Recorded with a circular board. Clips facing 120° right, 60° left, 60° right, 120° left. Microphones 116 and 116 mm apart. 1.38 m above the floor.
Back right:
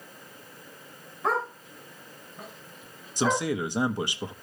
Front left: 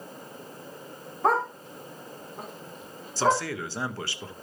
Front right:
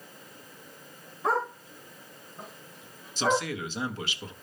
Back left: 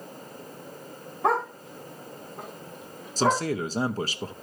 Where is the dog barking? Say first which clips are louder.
Front left 4 dB, back left 3 dB; 90° left, 4 m; by 3.5 s 85° left, 5.5 m.